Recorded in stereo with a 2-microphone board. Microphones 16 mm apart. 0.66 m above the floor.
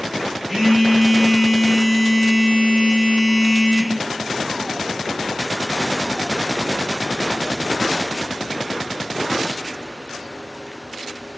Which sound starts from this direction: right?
A phone buzzing, at 0.5 s.